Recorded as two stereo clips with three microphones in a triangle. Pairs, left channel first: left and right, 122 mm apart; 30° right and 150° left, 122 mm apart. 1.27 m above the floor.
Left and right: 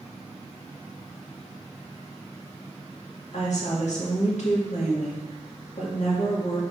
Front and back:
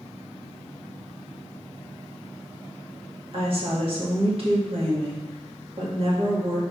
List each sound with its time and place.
3.3 s a woman speaking: 110° left, 2 m